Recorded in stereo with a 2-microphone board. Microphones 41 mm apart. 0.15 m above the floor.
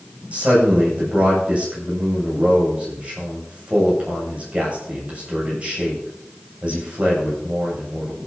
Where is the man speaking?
30° right (ahead or behind), 7.5 m.